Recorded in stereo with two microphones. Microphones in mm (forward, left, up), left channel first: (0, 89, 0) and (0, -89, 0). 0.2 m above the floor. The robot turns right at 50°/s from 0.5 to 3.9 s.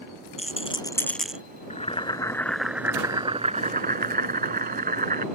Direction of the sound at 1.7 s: 135° left.